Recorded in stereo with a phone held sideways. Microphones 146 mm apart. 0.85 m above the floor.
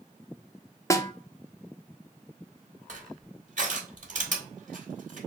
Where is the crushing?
60° right (ahead or behind), 2.0 m.